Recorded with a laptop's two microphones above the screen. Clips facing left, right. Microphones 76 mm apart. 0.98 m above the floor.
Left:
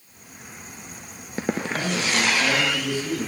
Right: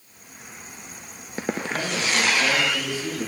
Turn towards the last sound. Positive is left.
turn(degrees=-25)  # may be behind; listen again after turning